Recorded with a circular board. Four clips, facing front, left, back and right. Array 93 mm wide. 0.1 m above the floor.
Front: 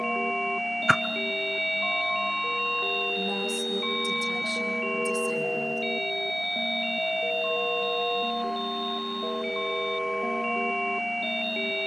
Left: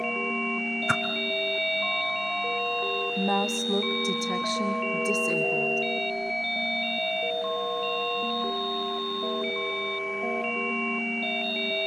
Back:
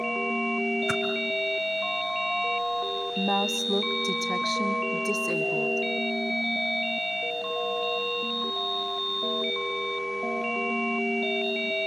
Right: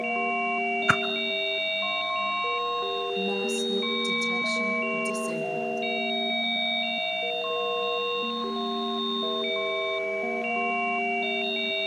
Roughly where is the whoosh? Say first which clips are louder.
Right 2 dB, front 5 dB; ahead right.